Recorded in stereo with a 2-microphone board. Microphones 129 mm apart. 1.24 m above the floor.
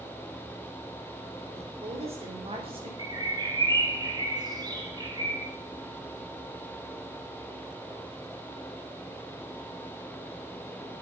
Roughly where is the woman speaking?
Right.